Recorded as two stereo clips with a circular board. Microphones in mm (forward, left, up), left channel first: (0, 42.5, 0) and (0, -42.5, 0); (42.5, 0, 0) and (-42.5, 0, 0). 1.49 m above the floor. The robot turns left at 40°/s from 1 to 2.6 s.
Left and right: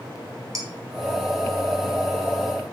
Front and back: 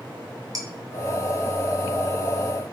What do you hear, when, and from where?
0.6 s dishes clattering: 135° right, 1.1 m